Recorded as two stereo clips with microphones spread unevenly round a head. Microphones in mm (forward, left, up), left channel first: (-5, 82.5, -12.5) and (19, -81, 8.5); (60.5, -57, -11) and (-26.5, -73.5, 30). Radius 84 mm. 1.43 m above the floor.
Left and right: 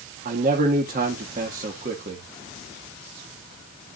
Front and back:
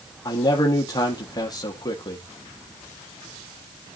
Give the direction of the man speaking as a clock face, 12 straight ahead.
1 o'clock.